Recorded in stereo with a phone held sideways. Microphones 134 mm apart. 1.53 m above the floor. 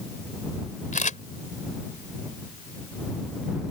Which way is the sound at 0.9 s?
75° left (ahead or behind).